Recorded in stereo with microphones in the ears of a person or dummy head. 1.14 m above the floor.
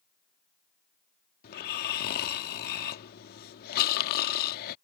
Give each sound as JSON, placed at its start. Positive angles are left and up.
{"t": 1.4, "sound": "snoring", "side_deg": 50}